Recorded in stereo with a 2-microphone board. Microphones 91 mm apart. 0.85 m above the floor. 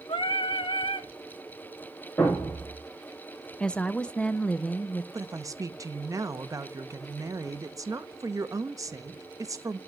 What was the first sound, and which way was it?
Singing, 70° left (ahead or behind).